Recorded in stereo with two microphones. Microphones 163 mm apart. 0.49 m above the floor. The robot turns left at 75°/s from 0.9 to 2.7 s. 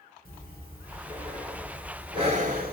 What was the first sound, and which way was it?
Breathing, 65° left.